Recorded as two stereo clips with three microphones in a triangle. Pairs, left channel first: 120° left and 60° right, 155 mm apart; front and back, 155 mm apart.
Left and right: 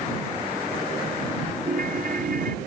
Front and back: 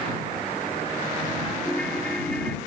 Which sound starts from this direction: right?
A ringtone, at 1.6 s.